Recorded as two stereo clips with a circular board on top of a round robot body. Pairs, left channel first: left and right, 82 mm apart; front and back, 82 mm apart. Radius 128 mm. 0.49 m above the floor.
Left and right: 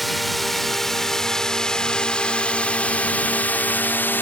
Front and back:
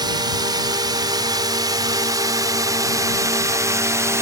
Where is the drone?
Straight behind; by 4.2 s 145° left.